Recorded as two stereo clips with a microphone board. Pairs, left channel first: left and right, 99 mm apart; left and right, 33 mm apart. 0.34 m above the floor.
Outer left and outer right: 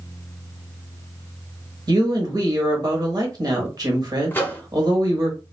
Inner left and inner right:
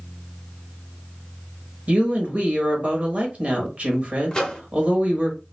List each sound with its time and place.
1.9 s a woman speaking: 45° right (ahead or behind), 1.1 m
4.3 s a microwave: 20° left (ahead or behind), 0.6 m